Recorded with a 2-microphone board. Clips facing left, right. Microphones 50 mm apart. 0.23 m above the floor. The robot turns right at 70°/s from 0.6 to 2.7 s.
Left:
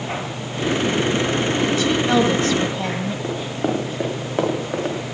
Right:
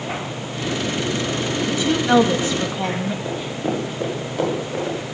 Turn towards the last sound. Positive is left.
turn(degrees=45)  # may be behind; listen again after turning